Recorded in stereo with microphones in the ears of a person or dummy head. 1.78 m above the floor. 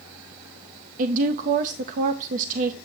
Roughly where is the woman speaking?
Right.